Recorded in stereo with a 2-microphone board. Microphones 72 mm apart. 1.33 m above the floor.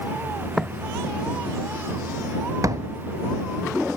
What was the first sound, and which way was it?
Footsteps, centre (ahead or behind).